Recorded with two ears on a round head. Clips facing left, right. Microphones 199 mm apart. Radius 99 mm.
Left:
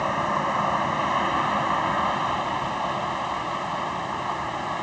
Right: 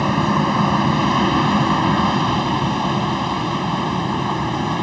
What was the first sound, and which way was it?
An aircraft, 60° right (ahead or behind).